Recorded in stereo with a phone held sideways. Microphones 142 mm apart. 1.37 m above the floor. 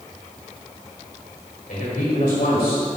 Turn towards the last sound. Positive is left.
turn(degrees=85)